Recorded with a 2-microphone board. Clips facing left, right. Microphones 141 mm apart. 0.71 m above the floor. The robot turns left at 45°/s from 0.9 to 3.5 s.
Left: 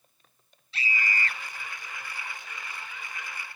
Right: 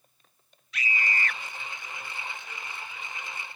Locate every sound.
0.7 s a scream: 30° left (ahead or behind)